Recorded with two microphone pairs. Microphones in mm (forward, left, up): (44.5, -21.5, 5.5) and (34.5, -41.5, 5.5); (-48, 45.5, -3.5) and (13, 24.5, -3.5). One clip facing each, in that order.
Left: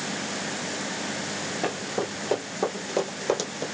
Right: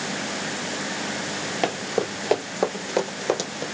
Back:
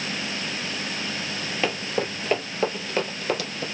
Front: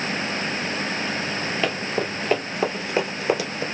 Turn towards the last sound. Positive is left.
turn(degrees=-35)